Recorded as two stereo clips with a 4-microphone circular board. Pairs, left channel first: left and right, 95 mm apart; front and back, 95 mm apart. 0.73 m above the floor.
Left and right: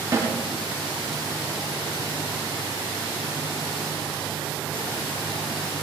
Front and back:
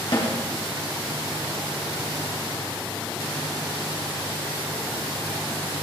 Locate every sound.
0.1 s a snare drum: 35° right, 5.5 m